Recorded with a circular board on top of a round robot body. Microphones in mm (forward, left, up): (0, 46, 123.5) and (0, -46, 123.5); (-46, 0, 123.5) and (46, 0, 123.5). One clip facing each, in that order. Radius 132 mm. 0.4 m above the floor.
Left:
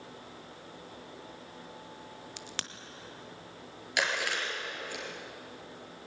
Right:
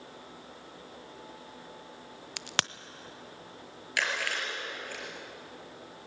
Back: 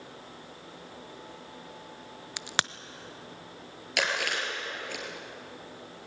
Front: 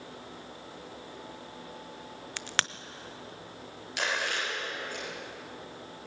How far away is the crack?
About 0.6 m.